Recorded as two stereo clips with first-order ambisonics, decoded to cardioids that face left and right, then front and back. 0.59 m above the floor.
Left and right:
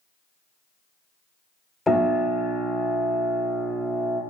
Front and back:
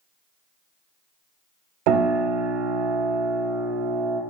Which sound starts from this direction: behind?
A piano, at 1.9 s.